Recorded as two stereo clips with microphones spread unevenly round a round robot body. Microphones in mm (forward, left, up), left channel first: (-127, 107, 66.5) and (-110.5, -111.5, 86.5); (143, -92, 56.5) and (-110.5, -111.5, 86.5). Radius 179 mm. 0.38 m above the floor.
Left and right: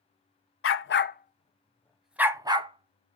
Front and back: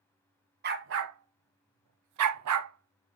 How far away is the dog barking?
About 1.1 m.